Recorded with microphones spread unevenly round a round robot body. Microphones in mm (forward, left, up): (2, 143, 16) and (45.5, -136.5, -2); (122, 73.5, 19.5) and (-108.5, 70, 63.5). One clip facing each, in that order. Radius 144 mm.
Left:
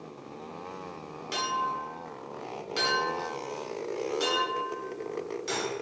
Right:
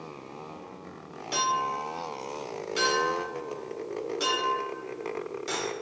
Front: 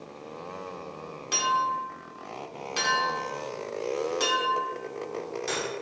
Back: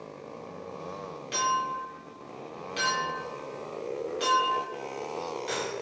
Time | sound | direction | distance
1.3 | a clink | 15° left | 1.4 m